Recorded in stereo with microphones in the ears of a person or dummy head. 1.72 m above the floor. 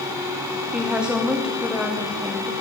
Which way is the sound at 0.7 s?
Centre (ahead or behind).